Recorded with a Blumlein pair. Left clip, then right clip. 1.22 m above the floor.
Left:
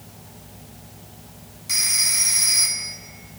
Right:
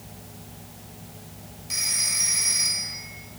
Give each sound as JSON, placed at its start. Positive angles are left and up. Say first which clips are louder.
{"t": 1.7, "sound": "a phone ringing", "louder": "left 5 dB", "azimuth_deg": 45, "distance_m": 1.6}